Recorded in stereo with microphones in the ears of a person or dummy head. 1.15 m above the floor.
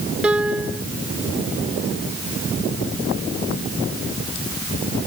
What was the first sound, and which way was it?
A piano, 10° right (ahead or behind).